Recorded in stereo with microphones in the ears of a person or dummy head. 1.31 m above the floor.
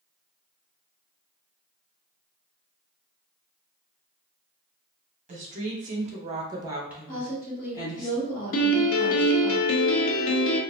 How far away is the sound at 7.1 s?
About 1.3 m.